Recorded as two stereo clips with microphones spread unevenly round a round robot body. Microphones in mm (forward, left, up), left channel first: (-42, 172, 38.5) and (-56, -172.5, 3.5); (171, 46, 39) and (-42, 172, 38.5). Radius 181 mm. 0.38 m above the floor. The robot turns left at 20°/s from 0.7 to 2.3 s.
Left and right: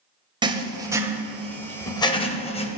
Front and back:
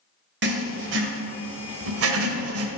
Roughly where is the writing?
Behind.